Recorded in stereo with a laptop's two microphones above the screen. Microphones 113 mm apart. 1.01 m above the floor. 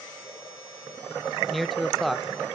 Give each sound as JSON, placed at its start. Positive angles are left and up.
{"t": 1.5, "sound": "a man speaking", "side_deg": 0, "distance_m": 0.5}